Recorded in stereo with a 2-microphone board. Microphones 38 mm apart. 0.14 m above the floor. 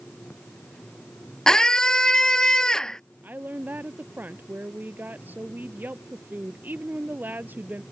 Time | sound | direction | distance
1.5 | a scream | 20° left (ahead or behind) | ?
3.2 | a woman speaking | 60° right (ahead or behind) | ?